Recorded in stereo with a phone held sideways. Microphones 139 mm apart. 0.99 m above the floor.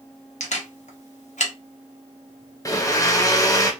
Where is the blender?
25° left (ahead or behind), 0.7 m.